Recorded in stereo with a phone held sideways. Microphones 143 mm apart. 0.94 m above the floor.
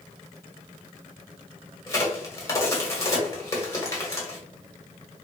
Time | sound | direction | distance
1.9 | a crack | 20° left (ahead or behind) | 1.2 m